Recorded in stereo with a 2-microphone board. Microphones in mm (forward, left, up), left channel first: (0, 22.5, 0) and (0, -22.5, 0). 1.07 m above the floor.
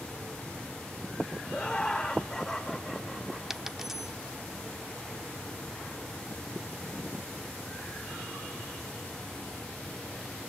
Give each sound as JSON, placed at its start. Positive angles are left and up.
{"t": 1.5, "sound": "laughter", "side_deg": 20, "distance_m": 3.5}
{"t": 3.5, "sound": "a dropped coin", "side_deg": -10, "distance_m": 0.7}